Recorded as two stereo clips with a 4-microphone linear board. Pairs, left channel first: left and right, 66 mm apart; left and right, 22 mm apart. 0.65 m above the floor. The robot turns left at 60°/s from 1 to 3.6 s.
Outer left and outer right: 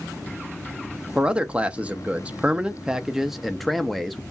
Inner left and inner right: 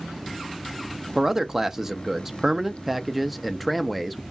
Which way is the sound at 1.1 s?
10° right (ahead or behind).